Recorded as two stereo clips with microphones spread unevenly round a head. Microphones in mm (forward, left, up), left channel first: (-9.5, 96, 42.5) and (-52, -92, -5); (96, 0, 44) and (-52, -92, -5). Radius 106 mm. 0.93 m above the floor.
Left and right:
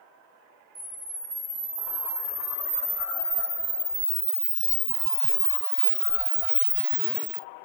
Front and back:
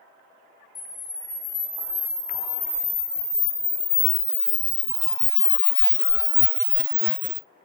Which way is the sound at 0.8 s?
Straight ahead.